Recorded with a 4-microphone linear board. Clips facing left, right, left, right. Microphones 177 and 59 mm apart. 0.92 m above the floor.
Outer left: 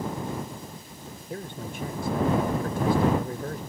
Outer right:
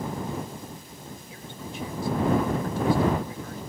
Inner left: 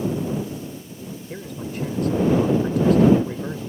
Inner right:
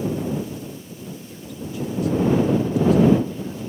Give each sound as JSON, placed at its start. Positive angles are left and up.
{"t": 1.3, "sound": "a man speaking", "side_deg": 55}